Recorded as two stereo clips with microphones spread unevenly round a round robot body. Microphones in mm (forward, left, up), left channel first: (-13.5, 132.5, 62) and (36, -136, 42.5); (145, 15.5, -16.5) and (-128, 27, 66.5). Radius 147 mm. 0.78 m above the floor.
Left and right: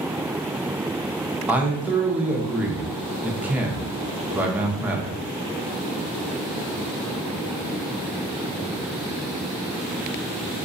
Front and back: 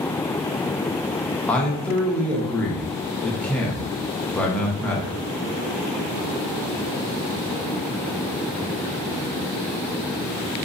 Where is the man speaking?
15° right, 0.6 m.